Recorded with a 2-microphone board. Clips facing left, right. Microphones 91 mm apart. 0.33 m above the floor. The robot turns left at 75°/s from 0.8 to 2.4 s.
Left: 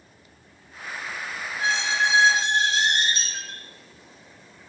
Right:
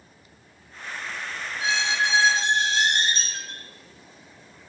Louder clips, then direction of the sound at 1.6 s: Left 1 dB; 65° left.